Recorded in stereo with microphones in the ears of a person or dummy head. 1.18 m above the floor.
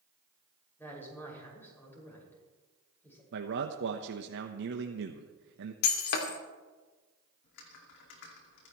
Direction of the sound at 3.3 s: 60° right (ahead or behind).